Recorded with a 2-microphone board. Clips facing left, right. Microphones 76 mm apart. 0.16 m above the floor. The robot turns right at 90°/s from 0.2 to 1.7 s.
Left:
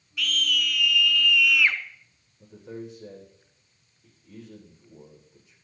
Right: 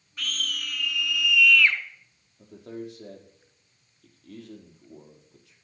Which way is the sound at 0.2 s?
110° right.